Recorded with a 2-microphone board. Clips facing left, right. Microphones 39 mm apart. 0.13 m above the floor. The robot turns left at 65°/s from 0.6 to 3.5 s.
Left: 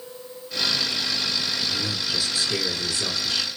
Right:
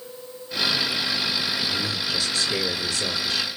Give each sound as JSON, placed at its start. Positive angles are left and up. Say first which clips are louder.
{"t": 1.7, "sound": "a man speaking", "louder": "right 1 dB", "azimuth_deg": -155, "distance_m": 2.0}